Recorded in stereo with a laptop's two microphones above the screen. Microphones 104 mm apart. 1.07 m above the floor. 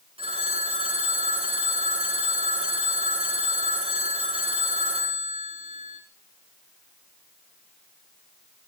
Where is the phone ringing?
65° right (ahead or behind), 6.5 m.